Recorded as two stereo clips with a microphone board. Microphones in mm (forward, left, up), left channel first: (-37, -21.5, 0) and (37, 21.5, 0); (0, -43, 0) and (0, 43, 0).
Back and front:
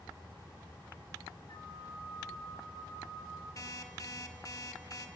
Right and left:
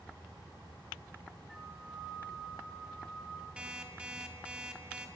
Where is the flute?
Straight behind, 2.5 m.